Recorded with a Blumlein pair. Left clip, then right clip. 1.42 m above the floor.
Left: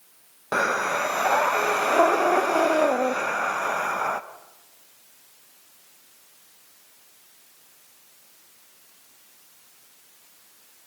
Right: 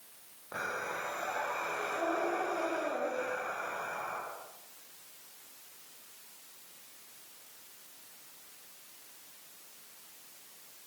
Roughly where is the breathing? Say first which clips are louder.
Left 14 dB; ahead left.